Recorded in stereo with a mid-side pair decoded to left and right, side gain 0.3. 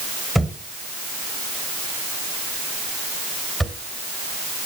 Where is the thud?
5° right, 3 m.